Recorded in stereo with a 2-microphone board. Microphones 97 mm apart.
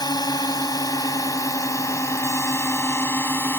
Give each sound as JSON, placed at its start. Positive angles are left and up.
{"t": 0.0, "sound": "a drone", "side_deg": 45}